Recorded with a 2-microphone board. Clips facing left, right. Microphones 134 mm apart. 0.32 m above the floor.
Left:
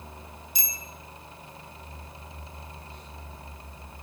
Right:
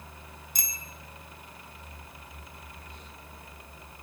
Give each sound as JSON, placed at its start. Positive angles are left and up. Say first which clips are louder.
{"t": 0.6, "sound": "a bicycle bell", "louder": "left 1 dB", "side_deg": -50, "distance_m": 3.0}